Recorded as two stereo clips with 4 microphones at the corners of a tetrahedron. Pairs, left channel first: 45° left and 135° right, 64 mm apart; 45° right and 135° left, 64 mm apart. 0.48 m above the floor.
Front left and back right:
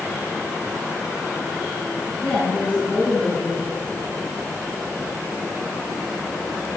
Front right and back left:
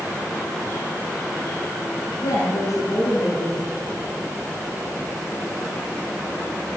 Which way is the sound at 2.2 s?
20° right.